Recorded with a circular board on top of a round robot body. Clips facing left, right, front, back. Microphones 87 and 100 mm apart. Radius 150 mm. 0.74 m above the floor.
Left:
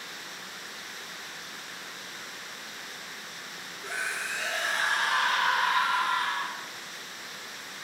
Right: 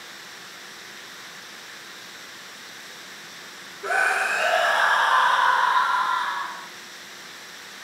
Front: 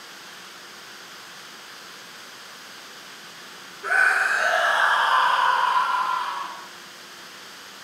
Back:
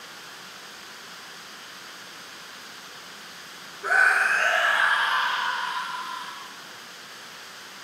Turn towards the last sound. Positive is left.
turn(degrees=-20)